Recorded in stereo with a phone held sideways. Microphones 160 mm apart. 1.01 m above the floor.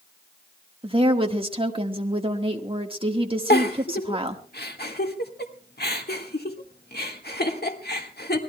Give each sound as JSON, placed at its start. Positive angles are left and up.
{"t": 0.8, "sound": "a woman speaking", "side_deg": -35, "distance_m": 1.5}
{"t": 3.5, "sound": "a giggle", "side_deg": 80, "distance_m": 1.8}